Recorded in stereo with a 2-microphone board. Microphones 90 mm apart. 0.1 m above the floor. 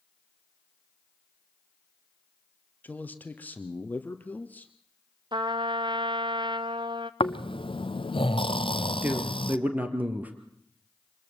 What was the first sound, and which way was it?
A man speaking, 20° left (ahead or behind).